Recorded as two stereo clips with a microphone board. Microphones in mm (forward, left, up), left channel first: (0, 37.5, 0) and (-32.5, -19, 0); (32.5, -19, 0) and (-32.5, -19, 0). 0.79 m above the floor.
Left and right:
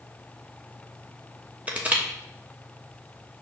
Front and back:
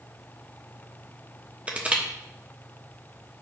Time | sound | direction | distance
1.7 | crushing | 145° right | 0.9 m